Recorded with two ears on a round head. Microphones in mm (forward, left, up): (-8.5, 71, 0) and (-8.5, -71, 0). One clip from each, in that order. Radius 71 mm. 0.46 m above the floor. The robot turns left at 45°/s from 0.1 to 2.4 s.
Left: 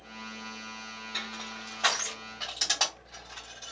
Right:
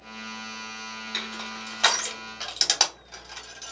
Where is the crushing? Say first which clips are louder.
Right 3 dB; 40° right (ahead or behind), 1.6 m; by 3.7 s 65° right (ahead or behind), 1.6 m.